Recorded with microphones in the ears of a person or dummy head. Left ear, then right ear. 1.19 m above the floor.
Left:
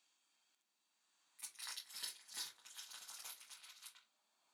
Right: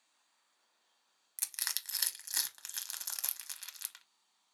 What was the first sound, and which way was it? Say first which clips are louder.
Crushing: right 11 dB; 70° right (ahead or behind).